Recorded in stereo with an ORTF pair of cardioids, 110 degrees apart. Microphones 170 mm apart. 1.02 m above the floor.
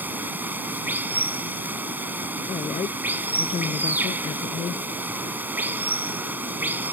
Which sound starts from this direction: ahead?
Running water, at 0.0 s.